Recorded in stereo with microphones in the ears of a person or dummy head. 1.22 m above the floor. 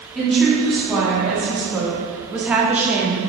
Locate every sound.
0.1 s a woman speaking: 5° right (ahead or behind), 3 m; by 3.2 s 15° right (ahead or behind), 1.3 m